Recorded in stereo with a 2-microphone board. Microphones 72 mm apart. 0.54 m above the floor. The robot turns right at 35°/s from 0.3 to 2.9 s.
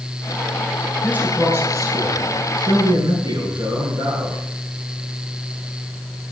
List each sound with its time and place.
1.0 s a man speaking: 165° right, 6.5 m; by 4.4 s 100° right, 6.5 m